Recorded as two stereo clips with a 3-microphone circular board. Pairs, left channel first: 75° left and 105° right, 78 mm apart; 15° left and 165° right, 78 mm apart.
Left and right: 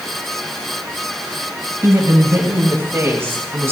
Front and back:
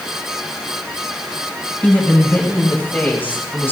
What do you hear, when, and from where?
1.8 s a woman speaking: 55° right, 7 m; by 3.7 s 45° right, 5 m